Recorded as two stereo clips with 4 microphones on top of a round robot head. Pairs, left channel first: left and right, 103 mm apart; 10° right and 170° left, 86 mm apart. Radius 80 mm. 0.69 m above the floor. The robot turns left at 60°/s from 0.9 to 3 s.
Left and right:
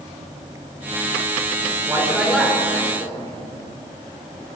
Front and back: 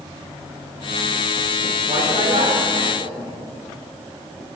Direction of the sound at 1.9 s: 150° right.